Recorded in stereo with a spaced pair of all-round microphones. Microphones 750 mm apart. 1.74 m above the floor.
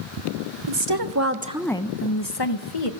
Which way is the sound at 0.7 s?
40° right (ahead or behind).